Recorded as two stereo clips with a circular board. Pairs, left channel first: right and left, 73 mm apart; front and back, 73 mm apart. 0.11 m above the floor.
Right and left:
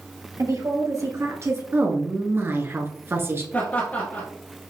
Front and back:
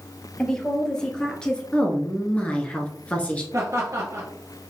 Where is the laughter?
145° right, 2 m.